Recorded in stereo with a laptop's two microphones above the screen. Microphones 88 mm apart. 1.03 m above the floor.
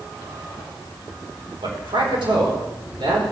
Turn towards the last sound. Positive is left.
turn(degrees=-75)  # may be behind; listen again after turning